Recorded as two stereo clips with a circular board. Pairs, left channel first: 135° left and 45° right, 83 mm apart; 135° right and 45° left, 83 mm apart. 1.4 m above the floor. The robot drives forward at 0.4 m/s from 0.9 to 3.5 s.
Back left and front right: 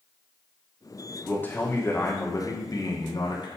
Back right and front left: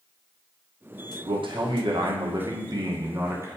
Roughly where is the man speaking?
Ahead left.